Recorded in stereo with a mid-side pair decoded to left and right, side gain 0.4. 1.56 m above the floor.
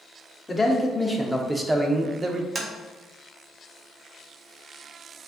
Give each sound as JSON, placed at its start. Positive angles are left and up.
{"t": 0.5, "sound": "a man speaking", "azimuth_deg": 20, "distance_m": 1.1}
{"t": 2.5, "sound": "tapping", "azimuth_deg": -30, "distance_m": 1.3}